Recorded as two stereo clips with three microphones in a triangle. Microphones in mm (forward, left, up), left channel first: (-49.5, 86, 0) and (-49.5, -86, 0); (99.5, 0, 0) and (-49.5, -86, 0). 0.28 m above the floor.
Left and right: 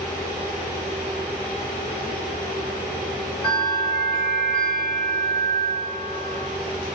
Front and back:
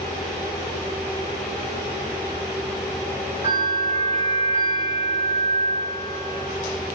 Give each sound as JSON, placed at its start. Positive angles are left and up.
{"t": 3.4, "sound": "a bell", "azimuth_deg": 10, "distance_m": 1.6}